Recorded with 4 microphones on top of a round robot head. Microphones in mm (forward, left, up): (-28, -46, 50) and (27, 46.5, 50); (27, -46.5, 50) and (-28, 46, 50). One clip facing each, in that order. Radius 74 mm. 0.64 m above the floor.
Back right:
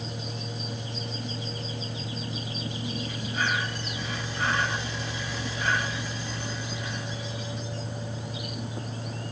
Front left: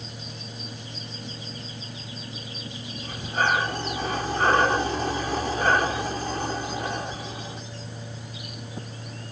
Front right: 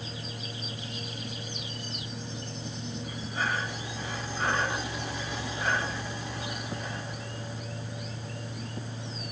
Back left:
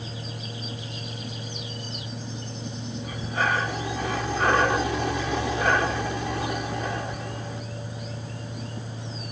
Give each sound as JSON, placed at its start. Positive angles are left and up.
{"t": 3.0, "sound": "breathing", "azimuth_deg": 105}